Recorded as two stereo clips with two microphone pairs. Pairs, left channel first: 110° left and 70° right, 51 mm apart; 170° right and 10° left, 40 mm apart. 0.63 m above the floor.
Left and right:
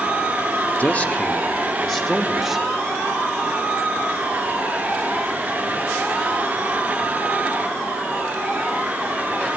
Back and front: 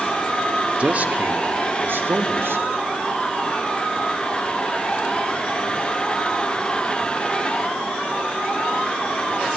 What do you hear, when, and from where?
0.8 s a man speaking: 60° left, 1.3 m; by 2.8 s 20° left, 2.5 m